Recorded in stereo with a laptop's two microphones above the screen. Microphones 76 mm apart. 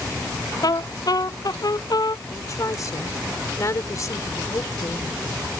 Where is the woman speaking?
45° left (ahead or behind).